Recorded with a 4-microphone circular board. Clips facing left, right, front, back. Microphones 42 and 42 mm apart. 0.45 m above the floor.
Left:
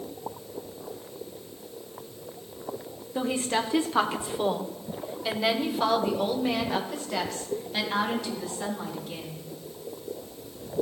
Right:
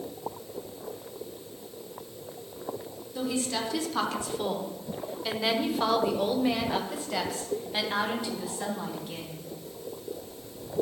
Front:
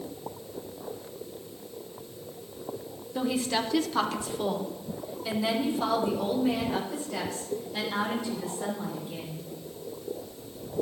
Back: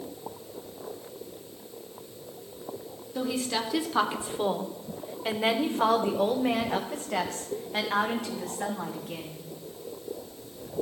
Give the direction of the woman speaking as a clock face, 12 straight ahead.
10 o'clock.